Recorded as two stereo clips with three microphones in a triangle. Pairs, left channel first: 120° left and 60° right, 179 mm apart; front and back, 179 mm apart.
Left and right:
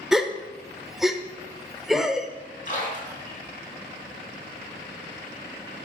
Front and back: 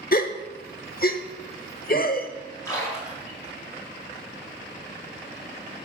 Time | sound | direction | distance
0.1 | a gasp | 30° left | 0.8 m
2.6 | a splash | 75° left | 4 m